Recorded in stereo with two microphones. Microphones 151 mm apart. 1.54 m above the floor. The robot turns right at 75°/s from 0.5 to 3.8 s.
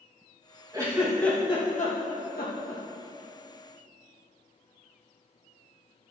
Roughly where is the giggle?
Right.